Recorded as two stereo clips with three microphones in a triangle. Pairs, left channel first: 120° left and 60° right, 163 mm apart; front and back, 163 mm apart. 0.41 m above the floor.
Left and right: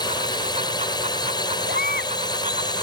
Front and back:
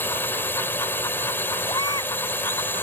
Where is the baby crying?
65° right.